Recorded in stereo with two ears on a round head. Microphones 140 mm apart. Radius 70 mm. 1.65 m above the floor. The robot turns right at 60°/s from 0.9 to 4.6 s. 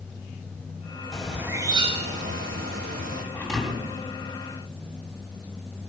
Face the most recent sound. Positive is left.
turn(degrees=-120)